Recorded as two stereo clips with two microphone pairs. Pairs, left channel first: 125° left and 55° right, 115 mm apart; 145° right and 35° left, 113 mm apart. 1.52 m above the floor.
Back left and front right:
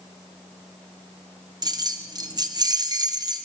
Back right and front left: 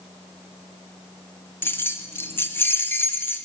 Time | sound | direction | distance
1.6 | keys jangling | 80° right | 0.5 m